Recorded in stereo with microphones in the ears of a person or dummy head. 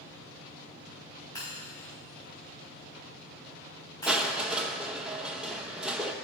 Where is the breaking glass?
20° left (ahead or behind), 5 m.